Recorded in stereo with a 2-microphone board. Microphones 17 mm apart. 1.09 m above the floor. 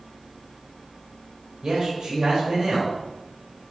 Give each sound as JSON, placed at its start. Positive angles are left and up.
{"t": 1.6, "sound": "a man speaking", "side_deg": -60, "distance_m": 4.0}